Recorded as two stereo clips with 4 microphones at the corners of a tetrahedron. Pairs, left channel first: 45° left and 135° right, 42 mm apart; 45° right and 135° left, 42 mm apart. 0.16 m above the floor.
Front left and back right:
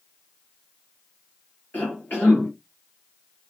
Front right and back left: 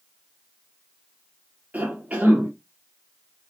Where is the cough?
85° left, 3.5 m.